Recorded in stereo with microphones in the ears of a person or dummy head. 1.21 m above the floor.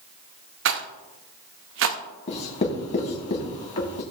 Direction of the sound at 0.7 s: 55° right (ahead or behind).